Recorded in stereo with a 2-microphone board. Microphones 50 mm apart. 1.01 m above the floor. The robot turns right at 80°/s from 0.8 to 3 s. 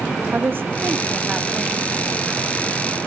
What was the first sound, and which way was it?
A woman speaking, 50° right.